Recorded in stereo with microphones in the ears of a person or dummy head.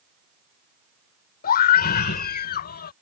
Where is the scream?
45° left (ahead or behind).